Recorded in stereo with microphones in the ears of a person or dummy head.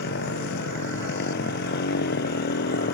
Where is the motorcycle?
65° left (ahead or behind).